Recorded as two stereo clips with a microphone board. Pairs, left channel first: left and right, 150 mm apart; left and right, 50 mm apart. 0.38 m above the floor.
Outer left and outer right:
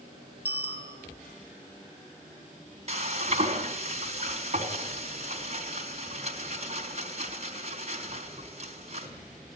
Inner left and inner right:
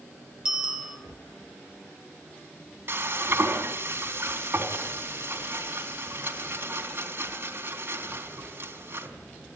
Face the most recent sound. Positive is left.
turn(degrees=-50)  # may be behind; listen again after turning